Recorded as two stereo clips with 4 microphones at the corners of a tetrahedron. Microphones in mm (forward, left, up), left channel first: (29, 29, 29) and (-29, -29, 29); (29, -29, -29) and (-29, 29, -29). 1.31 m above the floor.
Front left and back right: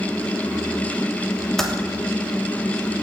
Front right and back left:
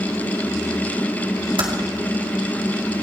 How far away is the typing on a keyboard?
About 3 m.